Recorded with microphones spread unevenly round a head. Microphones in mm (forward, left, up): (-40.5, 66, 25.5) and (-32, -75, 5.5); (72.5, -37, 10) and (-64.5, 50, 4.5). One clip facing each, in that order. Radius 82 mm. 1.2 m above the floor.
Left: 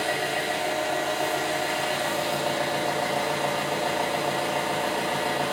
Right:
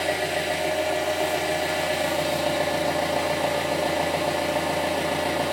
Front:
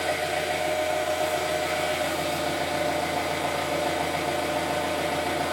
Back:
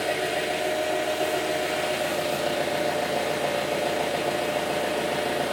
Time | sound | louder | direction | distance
0.0 | an engine running | right 2 dB, back 1 dB | 165° right | 0.9 m